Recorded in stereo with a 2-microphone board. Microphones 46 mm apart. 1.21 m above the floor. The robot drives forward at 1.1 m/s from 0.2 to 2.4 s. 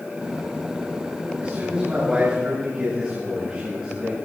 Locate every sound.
1.4 s a man speaking: 25° right (ahead or behind), 8 m; by 4.2 s 20° right (ahead or behind), 9 m